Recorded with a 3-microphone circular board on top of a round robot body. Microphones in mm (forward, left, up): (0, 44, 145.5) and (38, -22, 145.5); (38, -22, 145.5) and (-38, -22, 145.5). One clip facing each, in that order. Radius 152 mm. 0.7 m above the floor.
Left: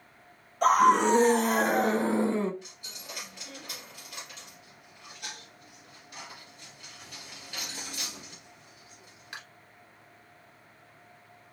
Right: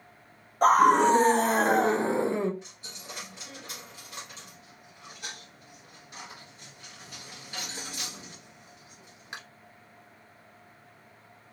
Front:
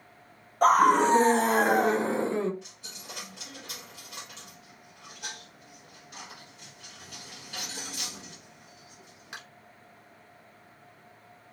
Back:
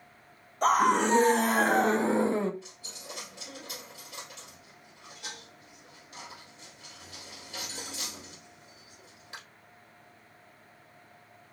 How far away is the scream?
About 1.6 m.